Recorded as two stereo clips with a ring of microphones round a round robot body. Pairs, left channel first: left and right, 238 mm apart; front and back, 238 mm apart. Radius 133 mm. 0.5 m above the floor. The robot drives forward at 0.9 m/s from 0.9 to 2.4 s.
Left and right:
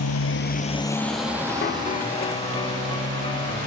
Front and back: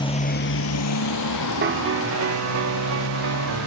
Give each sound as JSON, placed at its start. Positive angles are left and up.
{"t": 0.0, "sound": "a motorcycle", "azimuth_deg": 70}
{"t": 1.6, "sound": "a piano", "azimuth_deg": 140}